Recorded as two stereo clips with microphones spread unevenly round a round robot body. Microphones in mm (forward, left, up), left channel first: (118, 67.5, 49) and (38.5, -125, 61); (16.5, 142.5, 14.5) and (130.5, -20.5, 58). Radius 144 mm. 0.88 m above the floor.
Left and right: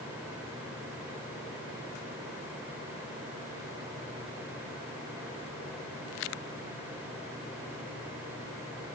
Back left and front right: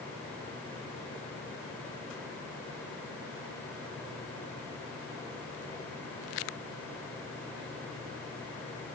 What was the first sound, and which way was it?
Only background noise.